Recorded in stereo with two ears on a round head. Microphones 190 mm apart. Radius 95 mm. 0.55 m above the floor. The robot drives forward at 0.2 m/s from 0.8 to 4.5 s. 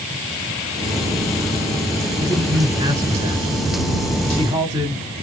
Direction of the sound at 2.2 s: 20° right (ahead or behind).